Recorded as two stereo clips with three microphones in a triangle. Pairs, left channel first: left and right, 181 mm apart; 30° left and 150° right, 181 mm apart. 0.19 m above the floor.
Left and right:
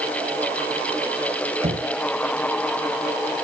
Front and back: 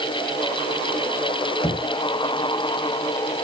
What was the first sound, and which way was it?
Knocking, 35° right.